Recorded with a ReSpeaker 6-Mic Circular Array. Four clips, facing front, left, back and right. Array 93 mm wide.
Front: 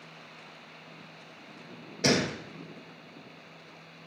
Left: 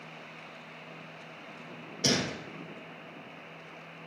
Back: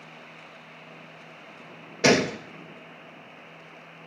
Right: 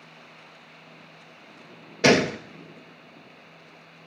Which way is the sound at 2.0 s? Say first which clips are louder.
Right 12 dB, back 6 dB; 120° right.